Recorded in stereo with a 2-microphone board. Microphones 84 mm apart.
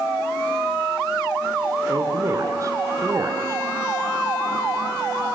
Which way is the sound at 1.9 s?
40° right (ahead or behind).